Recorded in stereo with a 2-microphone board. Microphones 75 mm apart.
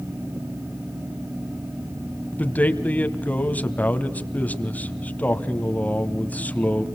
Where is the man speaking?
20° left (ahead or behind), 1.4 m.